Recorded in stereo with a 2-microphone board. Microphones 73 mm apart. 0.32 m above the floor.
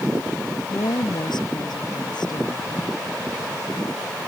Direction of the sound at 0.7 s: 80° left.